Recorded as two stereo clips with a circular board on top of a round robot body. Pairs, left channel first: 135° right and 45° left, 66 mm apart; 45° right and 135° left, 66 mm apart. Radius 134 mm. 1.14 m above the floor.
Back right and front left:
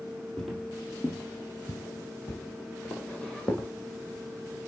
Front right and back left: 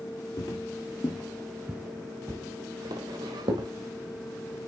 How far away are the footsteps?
About 1.5 m.